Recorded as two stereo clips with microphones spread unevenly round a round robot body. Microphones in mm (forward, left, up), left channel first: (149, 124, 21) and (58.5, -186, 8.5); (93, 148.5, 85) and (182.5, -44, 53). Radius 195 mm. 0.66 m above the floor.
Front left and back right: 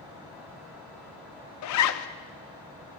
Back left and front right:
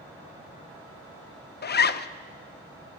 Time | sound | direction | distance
1.6 | a zipper | 70° left | 0.5 m